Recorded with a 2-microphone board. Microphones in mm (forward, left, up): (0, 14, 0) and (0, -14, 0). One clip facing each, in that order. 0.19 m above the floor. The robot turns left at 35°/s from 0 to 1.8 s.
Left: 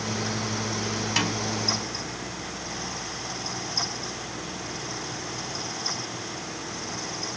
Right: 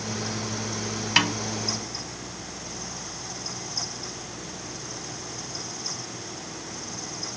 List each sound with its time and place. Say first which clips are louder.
1.2 s a snare drum: right 5 dB; 30° right (ahead or behind), 0.7 m